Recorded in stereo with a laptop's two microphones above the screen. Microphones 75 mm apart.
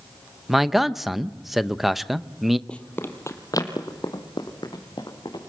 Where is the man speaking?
Centre (ahead or behind), 0.5 m.